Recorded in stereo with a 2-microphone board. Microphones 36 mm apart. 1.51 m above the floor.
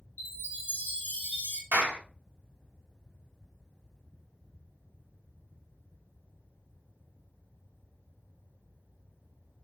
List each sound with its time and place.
0.2 s a chime: 65° left (ahead or behind), 1.7 m
1.7 s a clap: 60° right (ahead or behind), 1.8 m